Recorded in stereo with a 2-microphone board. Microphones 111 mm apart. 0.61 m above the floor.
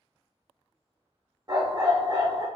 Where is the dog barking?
40° right (ahead or behind), 0.8 m.